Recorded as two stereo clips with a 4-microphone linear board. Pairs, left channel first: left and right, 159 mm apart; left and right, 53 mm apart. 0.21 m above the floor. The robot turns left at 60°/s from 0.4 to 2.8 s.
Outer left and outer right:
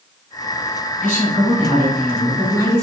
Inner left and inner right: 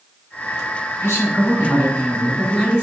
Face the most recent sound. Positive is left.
turn(degrees=-30)